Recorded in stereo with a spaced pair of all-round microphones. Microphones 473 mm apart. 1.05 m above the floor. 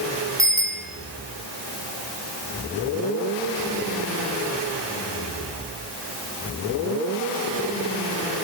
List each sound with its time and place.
0.4 s a bicycle bell: 5° right (ahead or behind), 8 m